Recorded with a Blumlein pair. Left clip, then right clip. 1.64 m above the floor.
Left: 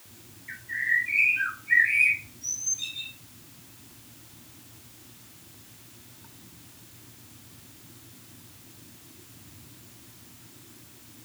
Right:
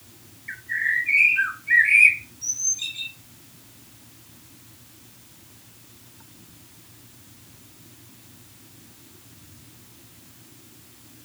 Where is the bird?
70° right, 0.7 m.